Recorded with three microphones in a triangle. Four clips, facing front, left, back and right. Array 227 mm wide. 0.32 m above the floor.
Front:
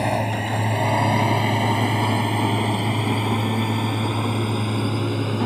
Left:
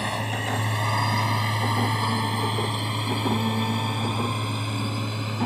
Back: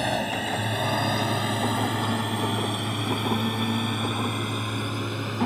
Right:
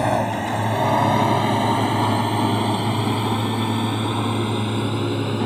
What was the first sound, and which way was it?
A drone, 75° right.